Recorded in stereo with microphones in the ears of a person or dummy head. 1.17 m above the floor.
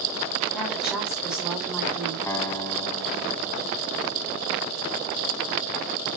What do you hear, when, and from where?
0.5 s a woman speaking: 5° left (ahead or behind), 3.5 m
2.3 s a guitar: 15° left (ahead or behind), 1.6 m